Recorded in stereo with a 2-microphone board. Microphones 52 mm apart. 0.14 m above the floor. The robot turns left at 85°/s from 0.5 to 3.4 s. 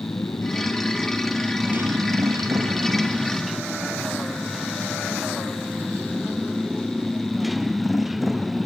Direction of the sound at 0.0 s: 70° left.